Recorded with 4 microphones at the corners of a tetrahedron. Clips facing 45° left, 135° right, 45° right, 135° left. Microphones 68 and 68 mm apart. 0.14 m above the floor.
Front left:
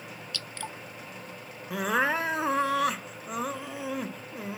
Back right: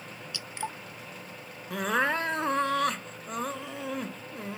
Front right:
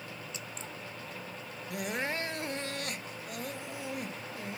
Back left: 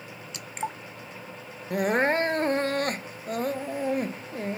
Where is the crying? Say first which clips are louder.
Front left 1 dB, back left 12 dB; 130° left.